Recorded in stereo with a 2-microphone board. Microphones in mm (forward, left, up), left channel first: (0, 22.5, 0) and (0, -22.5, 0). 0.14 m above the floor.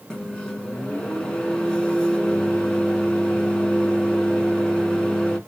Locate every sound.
0.1 s a microwave: 20° left (ahead or behind), 1.0 m